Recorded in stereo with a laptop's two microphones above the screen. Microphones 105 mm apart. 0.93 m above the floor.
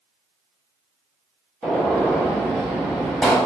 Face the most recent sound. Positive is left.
turn(degrees=-5)  # may be behind; listen again after turning